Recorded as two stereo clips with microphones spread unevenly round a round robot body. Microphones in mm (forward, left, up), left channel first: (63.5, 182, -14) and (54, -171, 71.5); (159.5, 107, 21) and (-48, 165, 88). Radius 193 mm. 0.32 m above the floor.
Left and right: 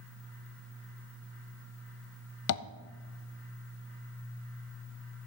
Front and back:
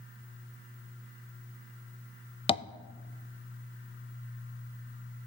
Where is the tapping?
45° left, 0.6 m.